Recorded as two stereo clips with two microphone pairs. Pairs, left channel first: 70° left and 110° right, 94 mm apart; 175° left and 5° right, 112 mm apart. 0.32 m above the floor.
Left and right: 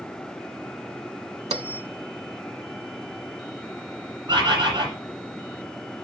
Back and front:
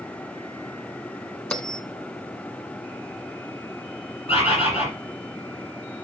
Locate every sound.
1.5 s a bell: 105° right, 0.8 m
4.3 s a bird: 155° right, 6 m